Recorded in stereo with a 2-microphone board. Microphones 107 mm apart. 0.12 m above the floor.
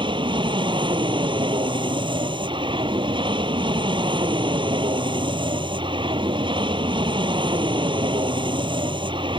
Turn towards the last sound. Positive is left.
turn(degrees=-50)  # may be behind; listen again after turning